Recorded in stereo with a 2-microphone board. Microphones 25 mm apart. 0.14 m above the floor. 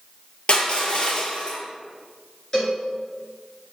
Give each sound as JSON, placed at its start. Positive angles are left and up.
{"t": 0.5, "sound": "crushing", "side_deg": 45, "distance_m": 0.9}
{"t": 2.5, "sound": "a cowbell", "side_deg": 25, "distance_m": 1.5}